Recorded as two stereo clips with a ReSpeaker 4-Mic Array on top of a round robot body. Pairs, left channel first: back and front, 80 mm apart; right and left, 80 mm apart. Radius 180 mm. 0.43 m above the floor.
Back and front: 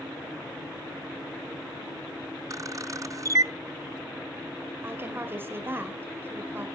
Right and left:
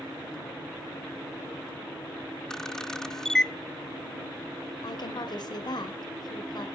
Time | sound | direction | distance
2.5 | a camera shutter | 10° right | 0.7 m
4.8 | a woman speaking | 60° right | 2 m